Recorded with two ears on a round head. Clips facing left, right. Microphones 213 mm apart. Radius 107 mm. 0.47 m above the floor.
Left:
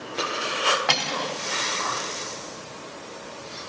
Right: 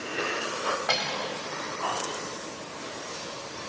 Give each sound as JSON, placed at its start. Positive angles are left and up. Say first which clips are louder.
{"t": 0.9, "sound": "cutlery clinking", "louder": "left 2 dB", "side_deg": 70, "distance_m": 1.3}